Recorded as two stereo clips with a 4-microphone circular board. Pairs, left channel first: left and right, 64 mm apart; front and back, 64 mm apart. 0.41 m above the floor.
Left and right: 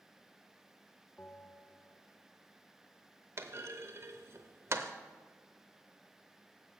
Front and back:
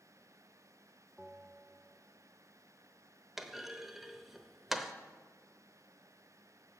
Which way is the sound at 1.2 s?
135° left.